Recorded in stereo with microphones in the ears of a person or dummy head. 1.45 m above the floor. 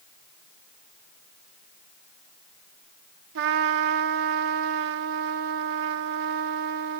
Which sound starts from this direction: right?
A trumpet, at 3.4 s.